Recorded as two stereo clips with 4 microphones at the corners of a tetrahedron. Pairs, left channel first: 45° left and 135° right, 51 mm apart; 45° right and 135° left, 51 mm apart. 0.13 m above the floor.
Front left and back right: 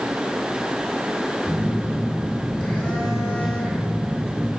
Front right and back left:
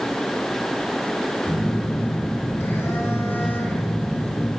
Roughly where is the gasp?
I don't hear a gasp.